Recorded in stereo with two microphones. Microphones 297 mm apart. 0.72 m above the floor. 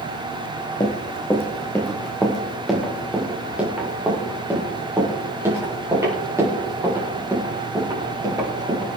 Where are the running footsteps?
15° left (ahead or behind), 2 m; by 8.9 s 10° right (ahead or behind), 8.5 m.